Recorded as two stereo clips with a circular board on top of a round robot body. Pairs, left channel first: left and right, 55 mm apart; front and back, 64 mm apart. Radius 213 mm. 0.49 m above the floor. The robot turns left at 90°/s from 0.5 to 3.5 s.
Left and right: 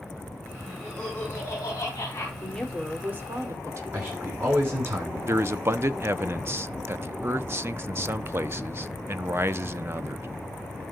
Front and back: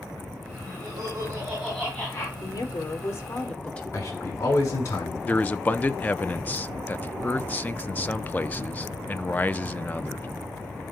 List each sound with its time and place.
0.7 s laughter: 170° right, 5 m; by 2.3 s 45° left, 5 m
2.4 s a woman speaking: 30° left, 2.5 m; by 3.8 s 70° right, 2.5 m
3.9 s a man speaking: 40° right, 8.5 m
5.2 s a man speaking: 55° right, 1.0 m